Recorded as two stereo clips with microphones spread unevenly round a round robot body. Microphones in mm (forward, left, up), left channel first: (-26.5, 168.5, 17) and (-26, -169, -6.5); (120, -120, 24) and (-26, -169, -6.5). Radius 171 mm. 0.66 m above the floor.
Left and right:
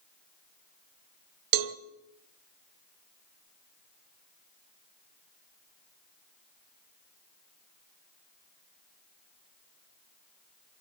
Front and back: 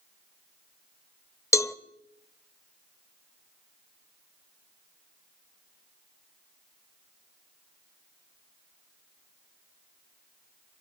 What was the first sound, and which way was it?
A cowbell, 50° right.